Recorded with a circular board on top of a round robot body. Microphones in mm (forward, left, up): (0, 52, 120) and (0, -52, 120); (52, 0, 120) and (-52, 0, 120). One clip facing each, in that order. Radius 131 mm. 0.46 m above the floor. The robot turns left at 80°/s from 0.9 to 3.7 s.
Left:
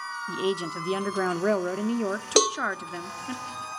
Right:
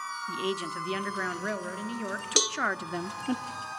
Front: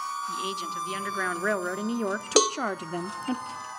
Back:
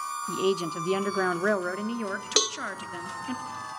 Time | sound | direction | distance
0.3 | a woman speaking | 150° left | 1.1 m
2.4 | a cowbell | 50° left | 0.7 m